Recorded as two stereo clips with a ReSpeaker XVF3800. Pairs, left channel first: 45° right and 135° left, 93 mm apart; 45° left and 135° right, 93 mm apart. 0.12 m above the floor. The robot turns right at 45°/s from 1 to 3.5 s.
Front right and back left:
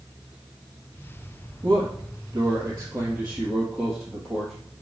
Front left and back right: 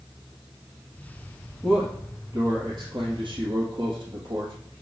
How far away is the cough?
I don't hear a cough.